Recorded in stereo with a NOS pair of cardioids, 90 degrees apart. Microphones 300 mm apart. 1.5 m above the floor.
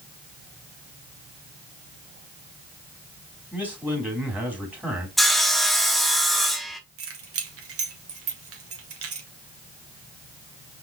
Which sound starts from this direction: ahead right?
Keys jangling, at 7.0 s.